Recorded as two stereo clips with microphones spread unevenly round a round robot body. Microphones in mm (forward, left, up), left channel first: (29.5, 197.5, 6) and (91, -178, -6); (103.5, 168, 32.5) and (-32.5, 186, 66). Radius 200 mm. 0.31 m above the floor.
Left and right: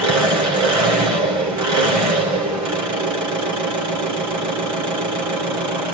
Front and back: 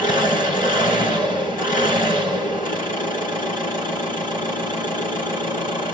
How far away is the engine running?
About 2.5 m.